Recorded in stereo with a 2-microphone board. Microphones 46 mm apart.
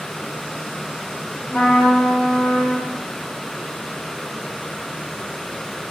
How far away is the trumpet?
About 1.9 m.